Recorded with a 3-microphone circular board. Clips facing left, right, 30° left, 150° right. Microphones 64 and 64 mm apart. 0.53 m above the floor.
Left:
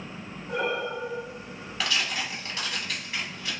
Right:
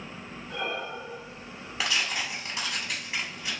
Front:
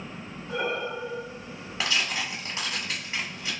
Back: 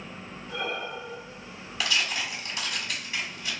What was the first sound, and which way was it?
Breathing, 85° left.